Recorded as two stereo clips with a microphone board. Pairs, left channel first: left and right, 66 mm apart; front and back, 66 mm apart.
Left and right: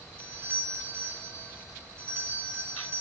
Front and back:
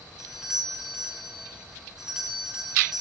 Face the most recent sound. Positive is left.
turn(degrees=-105)